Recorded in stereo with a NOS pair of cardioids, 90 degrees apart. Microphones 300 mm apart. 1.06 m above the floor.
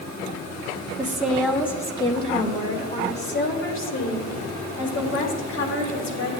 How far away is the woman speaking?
About 1.8 m.